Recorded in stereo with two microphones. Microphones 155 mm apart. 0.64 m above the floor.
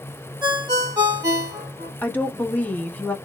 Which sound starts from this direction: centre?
A woman speaking, at 2.0 s.